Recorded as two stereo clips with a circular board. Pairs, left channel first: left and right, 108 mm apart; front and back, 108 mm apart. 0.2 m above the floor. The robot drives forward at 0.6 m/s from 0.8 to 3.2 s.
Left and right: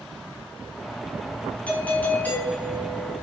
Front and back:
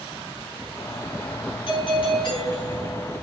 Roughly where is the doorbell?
Ahead.